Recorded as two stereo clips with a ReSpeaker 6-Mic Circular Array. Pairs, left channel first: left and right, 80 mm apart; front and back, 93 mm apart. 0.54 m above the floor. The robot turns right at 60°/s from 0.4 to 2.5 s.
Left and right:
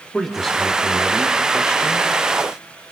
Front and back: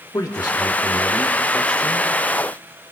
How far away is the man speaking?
About 1.4 m.